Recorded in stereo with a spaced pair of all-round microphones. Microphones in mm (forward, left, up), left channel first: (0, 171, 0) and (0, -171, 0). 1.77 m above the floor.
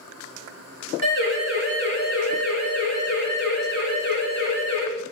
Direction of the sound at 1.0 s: 35° left (ahead or behind).